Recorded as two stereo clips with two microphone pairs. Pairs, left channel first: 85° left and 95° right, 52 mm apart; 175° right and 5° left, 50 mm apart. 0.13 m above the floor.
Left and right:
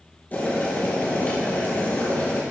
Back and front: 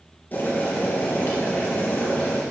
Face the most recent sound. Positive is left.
turn(degrees=140)